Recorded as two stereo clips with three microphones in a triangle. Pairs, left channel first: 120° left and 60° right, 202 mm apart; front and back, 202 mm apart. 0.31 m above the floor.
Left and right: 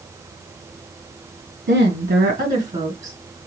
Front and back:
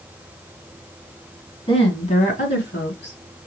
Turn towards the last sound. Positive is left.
turn(degrees=0)